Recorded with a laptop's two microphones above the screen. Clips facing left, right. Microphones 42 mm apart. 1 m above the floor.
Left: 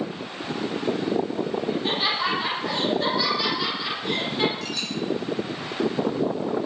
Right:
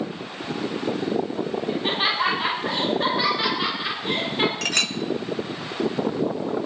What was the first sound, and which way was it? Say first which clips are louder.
Laughter: right 4 dB; 30° right (ahead or behind).